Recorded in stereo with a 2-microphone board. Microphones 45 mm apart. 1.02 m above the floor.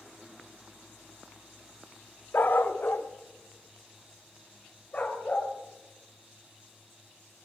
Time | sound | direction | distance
2.3 | a dog barking | 50° left (ahead or behind) | 0.8 m